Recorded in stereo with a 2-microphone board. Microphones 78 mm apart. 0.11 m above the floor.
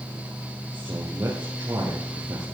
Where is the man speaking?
45° right (ahead or behind), 3 m.